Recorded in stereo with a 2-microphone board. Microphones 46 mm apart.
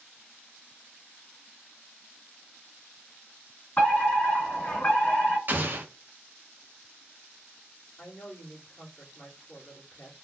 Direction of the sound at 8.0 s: 65° left (ahead or behind).